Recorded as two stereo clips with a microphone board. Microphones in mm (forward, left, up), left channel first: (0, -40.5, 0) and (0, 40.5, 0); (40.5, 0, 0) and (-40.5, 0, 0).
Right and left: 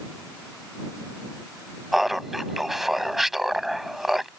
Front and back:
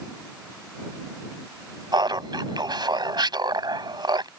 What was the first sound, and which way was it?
Laughter, 175° left.